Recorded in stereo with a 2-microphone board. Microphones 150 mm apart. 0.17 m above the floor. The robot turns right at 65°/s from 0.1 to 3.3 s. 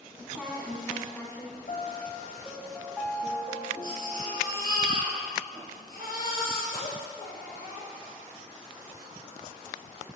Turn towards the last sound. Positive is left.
turn(degrees=75)  # may be behind; listen again after turning